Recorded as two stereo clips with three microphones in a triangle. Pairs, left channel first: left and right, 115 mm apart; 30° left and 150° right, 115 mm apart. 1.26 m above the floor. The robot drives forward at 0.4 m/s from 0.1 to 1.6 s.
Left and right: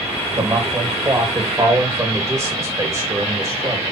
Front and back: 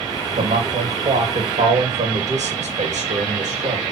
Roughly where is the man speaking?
Behind right.